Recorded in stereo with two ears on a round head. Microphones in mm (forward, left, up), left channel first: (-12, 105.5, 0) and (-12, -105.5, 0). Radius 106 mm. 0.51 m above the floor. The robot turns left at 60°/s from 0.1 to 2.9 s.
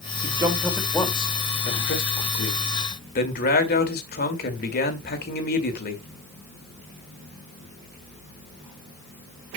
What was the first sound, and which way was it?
A man speaking, 150° right.